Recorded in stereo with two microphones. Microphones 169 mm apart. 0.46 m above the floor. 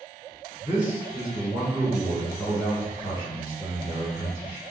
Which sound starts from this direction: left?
A man speaking, at 0.6 s.